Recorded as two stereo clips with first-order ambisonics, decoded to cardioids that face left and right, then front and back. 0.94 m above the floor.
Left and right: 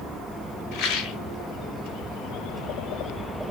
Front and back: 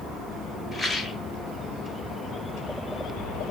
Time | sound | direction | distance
0.7 | a rattle | 65° left | 2.5 m